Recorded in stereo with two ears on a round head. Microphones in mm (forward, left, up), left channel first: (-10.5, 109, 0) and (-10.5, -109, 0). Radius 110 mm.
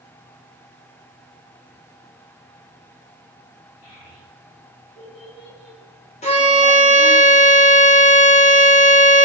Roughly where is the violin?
Left.